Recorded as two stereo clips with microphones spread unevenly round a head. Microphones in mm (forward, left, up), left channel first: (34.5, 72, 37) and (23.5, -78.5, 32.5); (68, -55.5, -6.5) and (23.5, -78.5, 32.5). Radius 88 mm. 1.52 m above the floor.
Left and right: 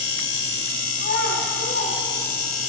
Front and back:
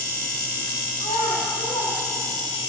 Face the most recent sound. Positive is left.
turn(degrees=85)